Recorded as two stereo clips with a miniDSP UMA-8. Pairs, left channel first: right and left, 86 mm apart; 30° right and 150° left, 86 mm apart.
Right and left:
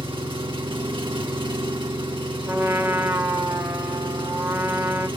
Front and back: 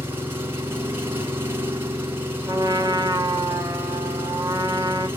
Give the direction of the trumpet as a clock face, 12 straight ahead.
7 o'clock.